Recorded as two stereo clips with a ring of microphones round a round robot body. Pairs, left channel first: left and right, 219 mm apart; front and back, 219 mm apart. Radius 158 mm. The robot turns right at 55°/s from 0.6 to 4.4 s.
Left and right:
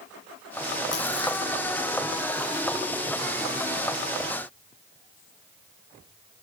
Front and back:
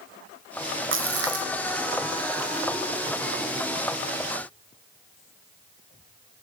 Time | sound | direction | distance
0.9 | a splash | 150° left | ?